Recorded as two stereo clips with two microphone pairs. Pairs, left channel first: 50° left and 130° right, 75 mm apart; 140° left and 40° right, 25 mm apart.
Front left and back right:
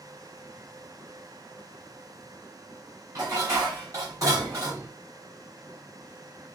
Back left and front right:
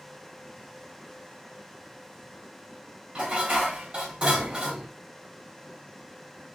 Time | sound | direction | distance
3.1 | dishes clattering | 85° right | 2.5 m